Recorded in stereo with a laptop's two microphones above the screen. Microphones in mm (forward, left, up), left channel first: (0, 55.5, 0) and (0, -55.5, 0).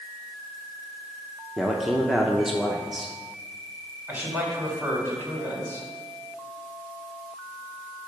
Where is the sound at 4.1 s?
15° right (ahead or behind), 3 m.